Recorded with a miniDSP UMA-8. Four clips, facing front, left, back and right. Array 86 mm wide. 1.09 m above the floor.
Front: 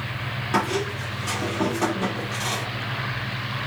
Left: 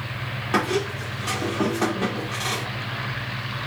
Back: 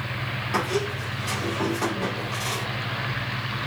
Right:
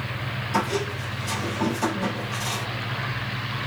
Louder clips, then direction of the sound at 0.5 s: Left 2 dB, front 2 dB; 70° left.